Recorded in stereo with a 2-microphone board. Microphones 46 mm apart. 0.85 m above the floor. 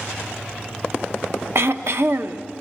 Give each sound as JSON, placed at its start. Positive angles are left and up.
{"t": 1.6, "sound": "throat clearing", "side_deg": -60, "distance_m": 0.9}